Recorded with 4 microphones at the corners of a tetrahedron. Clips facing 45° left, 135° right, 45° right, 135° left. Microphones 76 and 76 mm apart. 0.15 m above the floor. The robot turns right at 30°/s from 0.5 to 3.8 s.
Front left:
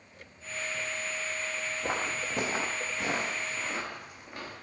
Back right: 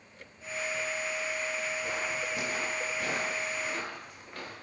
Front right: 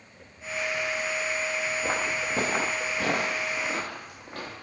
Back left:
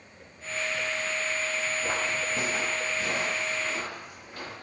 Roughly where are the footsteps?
Ahead left.